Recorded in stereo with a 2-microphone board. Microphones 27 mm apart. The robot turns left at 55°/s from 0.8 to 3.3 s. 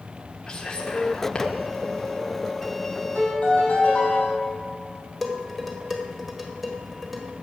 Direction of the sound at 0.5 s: 20° left (ahead or behind).